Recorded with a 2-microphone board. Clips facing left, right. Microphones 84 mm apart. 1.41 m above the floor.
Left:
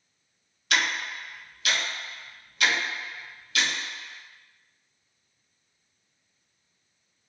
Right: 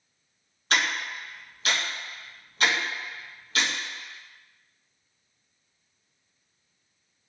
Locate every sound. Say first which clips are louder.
0.7 s ticking: even; 35° right (ahead or behind), 1.0 m